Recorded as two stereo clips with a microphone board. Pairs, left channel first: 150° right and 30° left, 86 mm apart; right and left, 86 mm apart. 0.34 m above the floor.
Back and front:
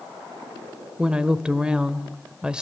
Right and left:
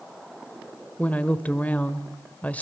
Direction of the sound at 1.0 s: 40° right.